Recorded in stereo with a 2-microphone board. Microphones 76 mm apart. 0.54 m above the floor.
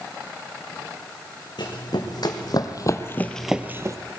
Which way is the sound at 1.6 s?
70° left (ahead or behind).